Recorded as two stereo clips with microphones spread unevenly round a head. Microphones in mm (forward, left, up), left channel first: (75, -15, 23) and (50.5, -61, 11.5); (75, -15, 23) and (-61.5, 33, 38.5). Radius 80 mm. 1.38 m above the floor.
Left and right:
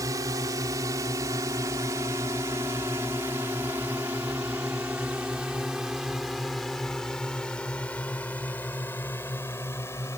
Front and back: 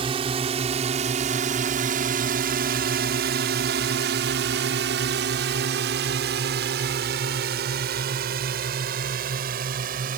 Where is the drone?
145° right; by 10.2 s 130° left.